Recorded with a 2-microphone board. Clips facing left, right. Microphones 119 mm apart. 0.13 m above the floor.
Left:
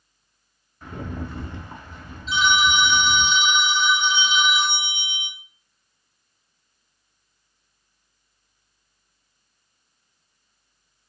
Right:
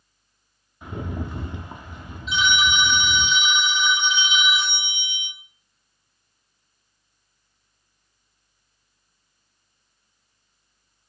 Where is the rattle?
15° right (ahead or behind), 0.5 m.